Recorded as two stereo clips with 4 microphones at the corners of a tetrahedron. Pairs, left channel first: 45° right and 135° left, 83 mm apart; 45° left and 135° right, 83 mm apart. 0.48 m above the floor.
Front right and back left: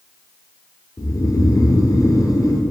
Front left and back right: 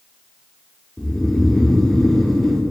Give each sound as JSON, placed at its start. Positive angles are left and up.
{"t": 1.0, "sound": "snoring", "azimuth_deg": -40, "distance_m": 0.6}